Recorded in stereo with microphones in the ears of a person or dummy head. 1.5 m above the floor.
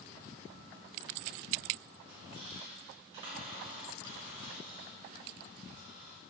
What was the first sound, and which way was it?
A squeak, 35° right (ahead or behind).